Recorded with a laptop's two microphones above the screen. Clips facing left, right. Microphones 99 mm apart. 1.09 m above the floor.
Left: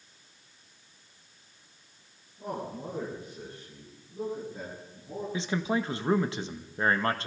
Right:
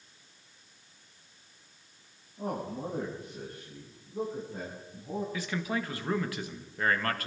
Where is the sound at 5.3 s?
25° left (ahead or behind), 1.4 m.